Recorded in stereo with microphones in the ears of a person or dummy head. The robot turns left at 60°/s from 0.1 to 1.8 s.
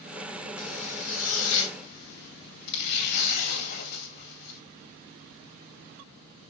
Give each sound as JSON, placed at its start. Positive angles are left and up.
{"t": 0.6, "sound": "a zipper", "azimuth_deg": 135, "distance_m": 2.0}